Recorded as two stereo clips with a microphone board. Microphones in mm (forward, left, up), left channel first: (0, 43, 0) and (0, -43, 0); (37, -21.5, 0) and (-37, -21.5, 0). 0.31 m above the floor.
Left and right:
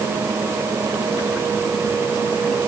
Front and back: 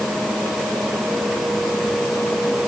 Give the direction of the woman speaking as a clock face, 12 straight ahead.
I don't hear a woman speaking.